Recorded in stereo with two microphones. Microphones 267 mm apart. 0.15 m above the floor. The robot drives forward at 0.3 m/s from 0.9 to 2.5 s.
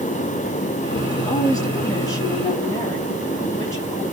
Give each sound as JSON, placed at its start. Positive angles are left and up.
{"t": 1.1, "sound": "a woman speaking", "side_deg": 15, "distance_m": 3.0}